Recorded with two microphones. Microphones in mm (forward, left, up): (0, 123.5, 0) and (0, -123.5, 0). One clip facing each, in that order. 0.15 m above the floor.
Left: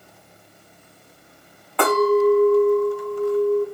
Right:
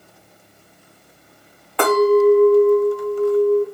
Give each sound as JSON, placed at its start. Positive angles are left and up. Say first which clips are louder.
{"t": 1.8, "sound": "a clink", "louder": "right 3 dB", "side_deg": 0, "distance_m": 1.1}